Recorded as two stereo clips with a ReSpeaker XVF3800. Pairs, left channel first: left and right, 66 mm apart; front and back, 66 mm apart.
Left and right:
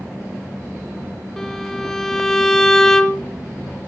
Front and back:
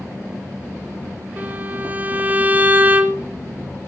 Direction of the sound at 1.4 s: 165° left.